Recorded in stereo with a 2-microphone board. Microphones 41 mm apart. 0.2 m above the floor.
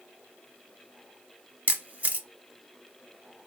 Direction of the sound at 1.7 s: 35° right (ahead or behind).